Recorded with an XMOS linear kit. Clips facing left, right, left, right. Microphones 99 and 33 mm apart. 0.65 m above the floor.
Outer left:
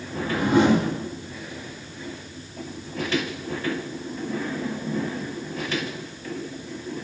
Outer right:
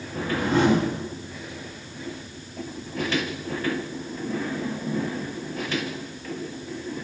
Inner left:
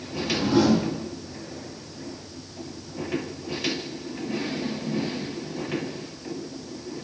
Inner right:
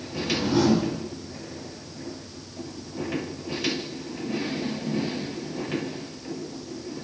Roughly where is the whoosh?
Centre.